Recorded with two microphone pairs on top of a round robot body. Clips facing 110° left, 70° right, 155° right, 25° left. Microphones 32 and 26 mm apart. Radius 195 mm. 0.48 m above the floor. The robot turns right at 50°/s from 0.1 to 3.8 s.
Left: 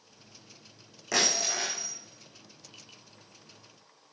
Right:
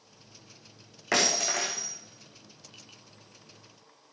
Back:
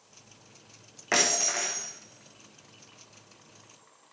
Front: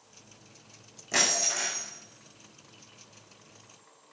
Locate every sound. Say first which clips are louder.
1.1 s breaking glass: right 2 dB, back 1 dB; 115° right, 4 m; by 1.9 s 80° right, 4 m